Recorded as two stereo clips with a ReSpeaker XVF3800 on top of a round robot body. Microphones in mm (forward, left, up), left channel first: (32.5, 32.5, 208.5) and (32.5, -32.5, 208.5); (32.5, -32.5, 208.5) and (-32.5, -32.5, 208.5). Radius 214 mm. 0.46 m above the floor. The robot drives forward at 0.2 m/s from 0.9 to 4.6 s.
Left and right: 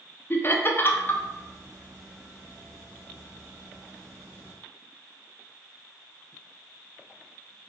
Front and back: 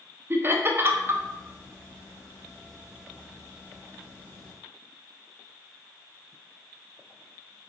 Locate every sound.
0.3 s laughter: 140° left, 0.9 m